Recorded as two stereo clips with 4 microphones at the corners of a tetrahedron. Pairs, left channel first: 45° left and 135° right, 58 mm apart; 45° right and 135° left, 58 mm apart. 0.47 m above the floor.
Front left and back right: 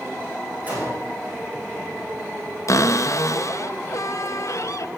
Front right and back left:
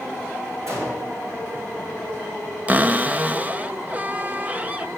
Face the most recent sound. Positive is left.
turn(degrees=75)